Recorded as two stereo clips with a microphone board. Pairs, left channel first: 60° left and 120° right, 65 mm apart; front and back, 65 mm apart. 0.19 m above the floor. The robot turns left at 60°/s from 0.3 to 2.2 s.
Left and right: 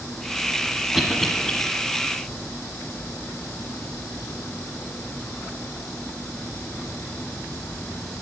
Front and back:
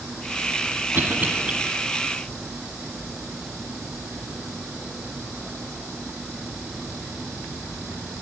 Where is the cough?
160° left, 1.3 m; by 1.5 s 125° left, 1.3 m.